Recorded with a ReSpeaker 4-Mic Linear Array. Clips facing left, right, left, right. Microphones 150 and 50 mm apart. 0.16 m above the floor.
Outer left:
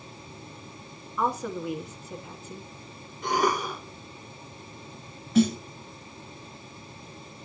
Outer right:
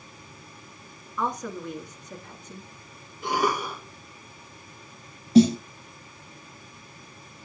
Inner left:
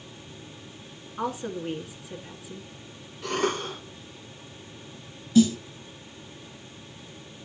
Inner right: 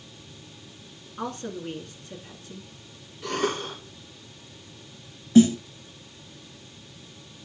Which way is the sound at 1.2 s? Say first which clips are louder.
Outer left 2 dB, inner left 2 dB; 5° left (ahead or behind).